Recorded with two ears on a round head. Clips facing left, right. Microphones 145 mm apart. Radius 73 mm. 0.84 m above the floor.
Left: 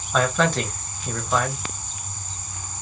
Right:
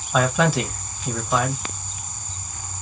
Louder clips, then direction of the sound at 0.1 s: Right 1 dB; 5° right (ahead or behind).